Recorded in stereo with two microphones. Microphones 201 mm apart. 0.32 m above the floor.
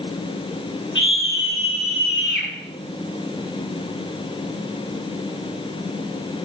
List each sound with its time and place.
0.9 s a scream: 70° left (ahead or behind), 5 m; by 2.5 s 65° left (ahead or behind), 4 m